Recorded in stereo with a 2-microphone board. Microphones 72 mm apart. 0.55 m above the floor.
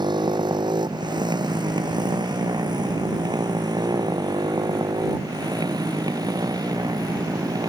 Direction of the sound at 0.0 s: 90° right.